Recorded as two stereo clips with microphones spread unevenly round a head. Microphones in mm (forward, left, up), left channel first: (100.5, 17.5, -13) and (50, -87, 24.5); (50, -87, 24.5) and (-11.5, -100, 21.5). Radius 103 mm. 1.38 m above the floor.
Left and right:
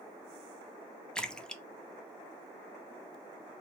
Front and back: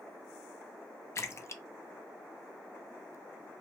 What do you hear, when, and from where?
1.1 s a splash: 30° right, 0.5 m